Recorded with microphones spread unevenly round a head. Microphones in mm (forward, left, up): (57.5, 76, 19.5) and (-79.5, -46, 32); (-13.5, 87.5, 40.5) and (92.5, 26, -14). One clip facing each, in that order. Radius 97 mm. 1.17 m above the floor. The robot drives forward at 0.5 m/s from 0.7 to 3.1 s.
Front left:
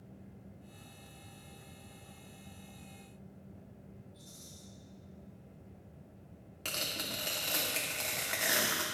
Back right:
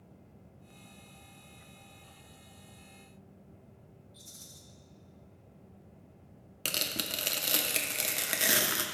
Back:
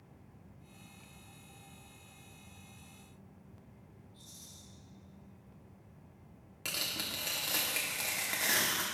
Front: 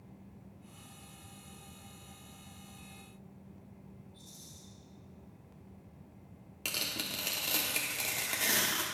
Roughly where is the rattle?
Behind right.